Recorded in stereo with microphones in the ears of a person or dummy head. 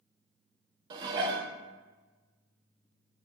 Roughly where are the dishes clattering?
Right.